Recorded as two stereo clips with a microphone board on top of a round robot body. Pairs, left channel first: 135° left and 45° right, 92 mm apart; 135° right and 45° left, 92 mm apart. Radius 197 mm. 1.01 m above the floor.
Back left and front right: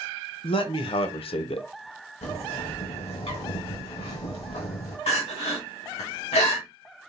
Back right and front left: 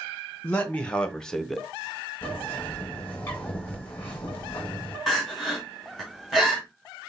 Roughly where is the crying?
Behind left.